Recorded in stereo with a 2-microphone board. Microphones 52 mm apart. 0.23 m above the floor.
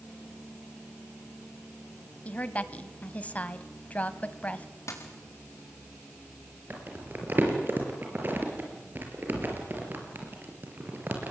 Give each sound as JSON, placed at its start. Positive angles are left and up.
{"t": 2.2, "sound": "a woman speaking", "side_deg": 30, "distance_m": 1.3}
{"t": 4.9, "sound": "a dropped coin", "side_deg": 70, "distance_m": 4.5}
{"t": 6.7, "sound": "crumpling", "side_deg": -40, "distance_m": 5.0}